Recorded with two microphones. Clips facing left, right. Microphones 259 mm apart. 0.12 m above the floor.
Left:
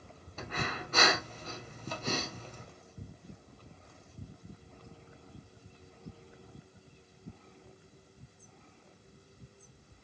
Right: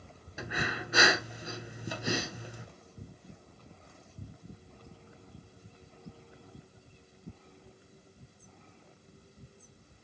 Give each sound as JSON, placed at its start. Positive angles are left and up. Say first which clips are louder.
{"t": 0.4, "sound": "breathing", "louder": "right 2 dB", "side_deg": -10, "distance_m": 0.7}